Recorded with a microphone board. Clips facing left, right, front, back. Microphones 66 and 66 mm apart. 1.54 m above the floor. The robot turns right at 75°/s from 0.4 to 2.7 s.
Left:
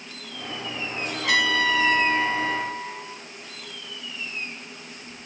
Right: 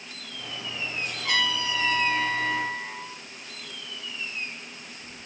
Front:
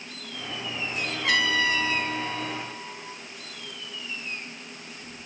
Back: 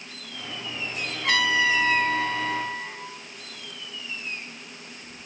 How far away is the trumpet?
About 4.5 m.